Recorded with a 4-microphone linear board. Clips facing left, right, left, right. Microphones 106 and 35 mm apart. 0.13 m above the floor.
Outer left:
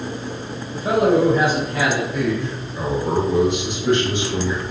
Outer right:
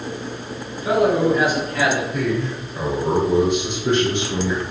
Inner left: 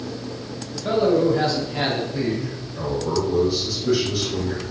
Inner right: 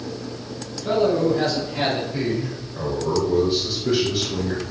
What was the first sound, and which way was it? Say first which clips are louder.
A man speaking: outer left 1 dB, inner left 1 dB; 45° left (ahead or behind).